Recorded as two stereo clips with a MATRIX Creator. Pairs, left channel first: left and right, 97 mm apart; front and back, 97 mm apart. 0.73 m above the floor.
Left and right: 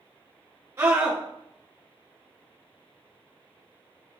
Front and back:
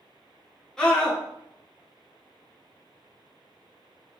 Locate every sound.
0.8 s a scream: 80° right, 0.8 m